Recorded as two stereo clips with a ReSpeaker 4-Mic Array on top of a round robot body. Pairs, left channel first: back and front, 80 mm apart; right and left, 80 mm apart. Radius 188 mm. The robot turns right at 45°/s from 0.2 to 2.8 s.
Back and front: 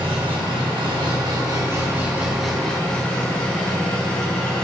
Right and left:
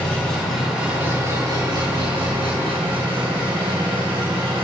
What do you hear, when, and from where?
0.0 s an engine running: 15° right, 4 m; by 4.7 s 100° left, 4 m